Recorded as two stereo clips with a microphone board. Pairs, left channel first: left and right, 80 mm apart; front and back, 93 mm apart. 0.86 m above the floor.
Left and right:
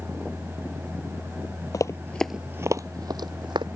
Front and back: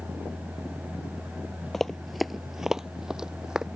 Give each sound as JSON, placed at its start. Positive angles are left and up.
{"t": 1.7, "sound": "running footsteps", "azimuth_deg": 90}